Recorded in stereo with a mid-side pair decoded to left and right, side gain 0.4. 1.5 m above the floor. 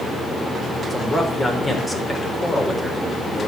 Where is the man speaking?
30° left, 5 m.